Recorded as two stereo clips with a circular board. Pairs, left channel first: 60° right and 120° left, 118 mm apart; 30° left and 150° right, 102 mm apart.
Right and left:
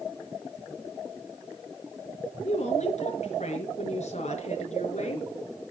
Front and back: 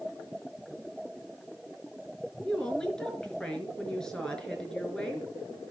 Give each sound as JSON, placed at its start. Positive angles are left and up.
{"t": 2.4, "sound": "a woman speaking", "azimuth_deg": -50, "distance_m": 4.5}